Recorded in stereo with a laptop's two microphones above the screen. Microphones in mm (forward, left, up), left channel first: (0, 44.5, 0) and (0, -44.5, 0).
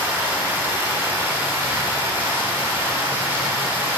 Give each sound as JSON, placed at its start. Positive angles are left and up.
{"t": 0.0, "sound": "running water", "side_deg": -25, "distance_m": 1.8}